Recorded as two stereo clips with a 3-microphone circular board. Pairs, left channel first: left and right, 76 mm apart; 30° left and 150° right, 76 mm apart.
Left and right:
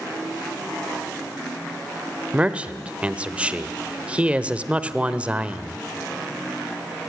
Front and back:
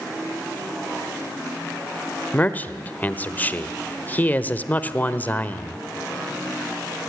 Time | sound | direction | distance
2.3 | a man speaking | 25° right | 1.1 m